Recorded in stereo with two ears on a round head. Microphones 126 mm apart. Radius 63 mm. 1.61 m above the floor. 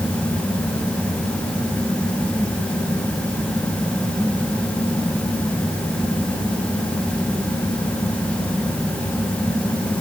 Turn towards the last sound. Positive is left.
No sound to turn to.